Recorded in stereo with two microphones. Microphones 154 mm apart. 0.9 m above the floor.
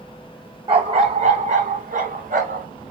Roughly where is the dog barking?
Right.